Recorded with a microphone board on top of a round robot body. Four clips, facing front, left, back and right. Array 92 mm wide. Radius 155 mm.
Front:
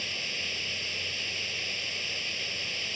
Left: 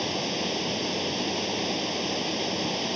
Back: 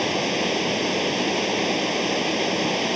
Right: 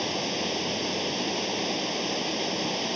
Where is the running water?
Straight behind.